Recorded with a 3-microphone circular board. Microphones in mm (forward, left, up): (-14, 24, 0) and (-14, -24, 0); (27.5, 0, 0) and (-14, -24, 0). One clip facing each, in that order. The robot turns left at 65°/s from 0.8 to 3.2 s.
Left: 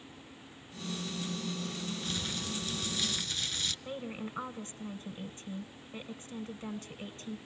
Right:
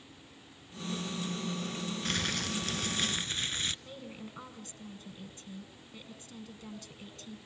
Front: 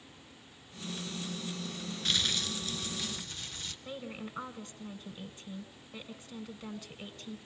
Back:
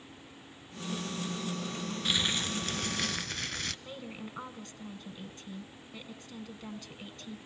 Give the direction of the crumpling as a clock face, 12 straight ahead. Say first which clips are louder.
Right 4 dB, back 1 dB; 2 o'clock.